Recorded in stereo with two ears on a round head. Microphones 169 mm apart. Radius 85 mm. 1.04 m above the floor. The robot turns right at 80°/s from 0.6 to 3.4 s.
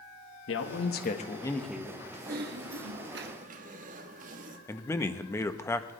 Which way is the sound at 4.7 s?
15° left (ahead or behind).